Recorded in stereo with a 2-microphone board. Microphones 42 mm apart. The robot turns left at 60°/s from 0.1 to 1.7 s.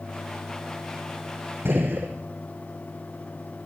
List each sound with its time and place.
1.6 s a gunshot: 50° right (ahead or behind), 6 m